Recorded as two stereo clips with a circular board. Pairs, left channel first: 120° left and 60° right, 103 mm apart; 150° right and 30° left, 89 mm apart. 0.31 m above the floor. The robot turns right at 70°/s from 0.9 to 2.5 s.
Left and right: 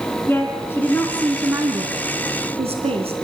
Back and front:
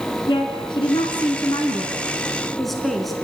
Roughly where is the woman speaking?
Behind.